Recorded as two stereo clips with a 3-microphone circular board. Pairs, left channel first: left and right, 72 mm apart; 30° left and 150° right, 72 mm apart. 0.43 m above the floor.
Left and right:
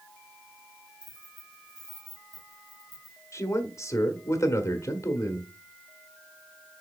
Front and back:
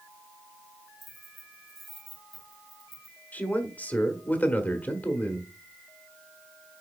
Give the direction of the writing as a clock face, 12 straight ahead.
No writing in this recording.